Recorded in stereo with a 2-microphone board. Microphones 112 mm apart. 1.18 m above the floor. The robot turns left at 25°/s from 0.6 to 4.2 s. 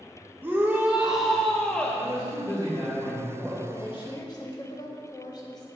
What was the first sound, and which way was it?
A shout, 160° right.